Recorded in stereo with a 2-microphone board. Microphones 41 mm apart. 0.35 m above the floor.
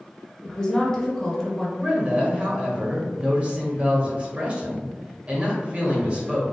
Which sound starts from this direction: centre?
A woman speaking, at 0.4 s.